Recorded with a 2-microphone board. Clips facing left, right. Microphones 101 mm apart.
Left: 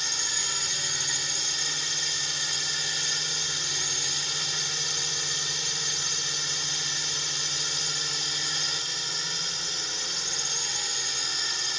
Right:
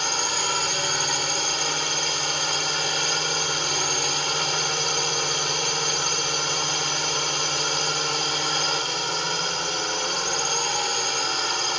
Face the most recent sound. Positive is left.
turn(degrees=-65)  # may be behind; listen again after turning